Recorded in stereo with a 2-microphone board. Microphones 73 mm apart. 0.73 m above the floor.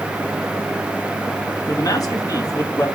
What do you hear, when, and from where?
1.7 s a man speaking: 55° left (ahead or behind), 1.5 m